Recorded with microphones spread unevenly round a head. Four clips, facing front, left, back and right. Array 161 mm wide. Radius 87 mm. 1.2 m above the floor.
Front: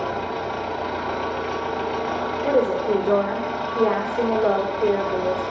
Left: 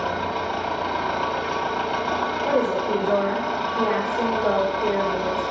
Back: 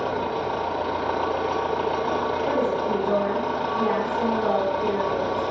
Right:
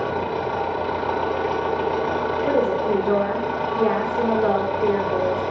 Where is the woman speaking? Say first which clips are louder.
Right 2 dB, front 7 dB; 50° right, 3.5 m.